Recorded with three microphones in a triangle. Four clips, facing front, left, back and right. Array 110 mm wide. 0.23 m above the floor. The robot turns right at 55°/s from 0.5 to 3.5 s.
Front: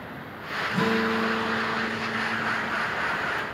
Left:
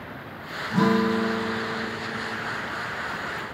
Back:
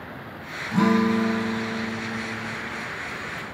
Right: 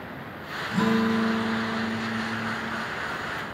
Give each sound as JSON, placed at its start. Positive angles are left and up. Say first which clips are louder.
{"t": 0.7, "sound": "a guitar", "louder": "left 2 dB, back 5 dB", "azimuth_deg": 135, "distance_m": 1.5}